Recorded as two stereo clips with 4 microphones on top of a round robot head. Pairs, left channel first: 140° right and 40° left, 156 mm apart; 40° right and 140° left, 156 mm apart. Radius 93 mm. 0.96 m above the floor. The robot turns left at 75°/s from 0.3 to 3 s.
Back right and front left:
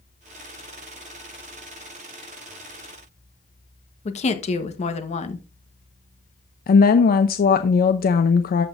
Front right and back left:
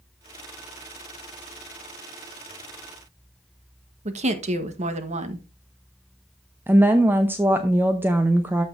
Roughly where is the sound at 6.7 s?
Behind right.